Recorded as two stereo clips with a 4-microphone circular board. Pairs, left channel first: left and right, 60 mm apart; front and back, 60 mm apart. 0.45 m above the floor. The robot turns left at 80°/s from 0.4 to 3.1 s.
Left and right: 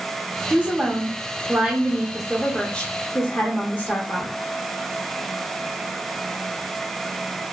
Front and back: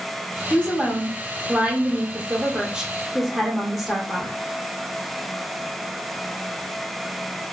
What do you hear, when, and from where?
0.5 s a woman speaking: 55° right, 0.9 m; by 4.3 s 95° left, 0.9 m